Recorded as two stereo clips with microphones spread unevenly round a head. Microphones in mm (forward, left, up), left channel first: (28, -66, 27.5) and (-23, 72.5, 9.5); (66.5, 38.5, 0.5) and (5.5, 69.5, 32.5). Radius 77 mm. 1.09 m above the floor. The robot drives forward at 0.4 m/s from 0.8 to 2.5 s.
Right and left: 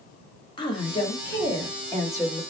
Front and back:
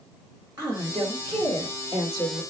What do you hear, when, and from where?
0.6 s a woman speaking: 130° right, 1.4 m; by 2.4 s 145° right, 1.9 m